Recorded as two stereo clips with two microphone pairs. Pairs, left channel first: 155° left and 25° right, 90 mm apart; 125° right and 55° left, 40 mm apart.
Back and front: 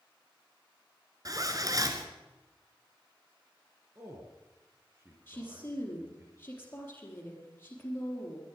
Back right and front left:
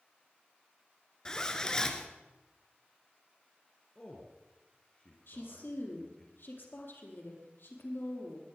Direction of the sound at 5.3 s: 140° right.